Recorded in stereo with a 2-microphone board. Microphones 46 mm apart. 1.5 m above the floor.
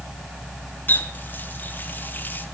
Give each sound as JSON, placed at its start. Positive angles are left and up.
{"t": 0.9, "sound": "a running tap", "side_deg": 45, "distance_m": 2.5}